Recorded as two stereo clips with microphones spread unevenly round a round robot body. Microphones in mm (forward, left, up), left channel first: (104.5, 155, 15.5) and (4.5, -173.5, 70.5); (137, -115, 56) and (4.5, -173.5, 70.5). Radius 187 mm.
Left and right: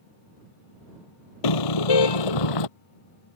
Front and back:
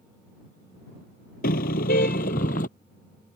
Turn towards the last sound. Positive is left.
turn(degrees=75)